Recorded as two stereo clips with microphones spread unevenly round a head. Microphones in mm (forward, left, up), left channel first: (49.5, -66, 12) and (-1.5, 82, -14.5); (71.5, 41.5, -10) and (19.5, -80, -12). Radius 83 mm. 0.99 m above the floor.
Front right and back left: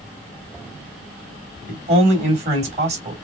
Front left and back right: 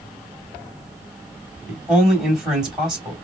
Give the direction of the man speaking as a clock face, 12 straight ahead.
7 o'clock.